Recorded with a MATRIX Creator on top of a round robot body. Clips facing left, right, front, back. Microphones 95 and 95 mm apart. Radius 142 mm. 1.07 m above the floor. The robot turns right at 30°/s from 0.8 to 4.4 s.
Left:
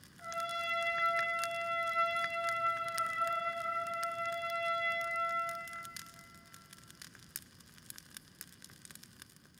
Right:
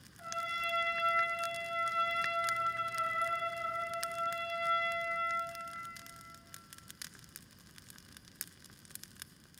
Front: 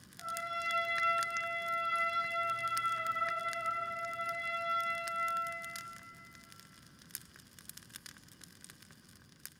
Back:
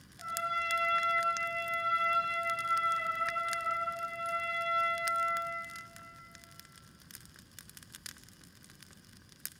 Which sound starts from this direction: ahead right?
A trumpet, at 0.2 s.